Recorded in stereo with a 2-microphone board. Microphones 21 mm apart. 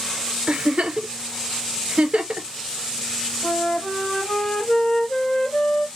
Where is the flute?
60° left (ahead or behind), 1.9 m.